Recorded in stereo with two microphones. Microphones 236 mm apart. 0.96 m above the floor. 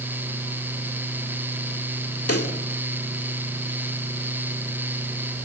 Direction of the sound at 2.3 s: 85° left.